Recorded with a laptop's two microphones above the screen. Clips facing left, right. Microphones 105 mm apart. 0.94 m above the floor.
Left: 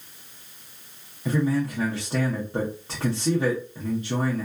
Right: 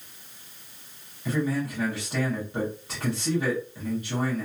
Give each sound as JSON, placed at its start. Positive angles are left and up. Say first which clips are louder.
{"t": 1.2, "sound": "a man speaking", "louder": "left 3 dB", "side_deg": 35, "distance_m": 0.7}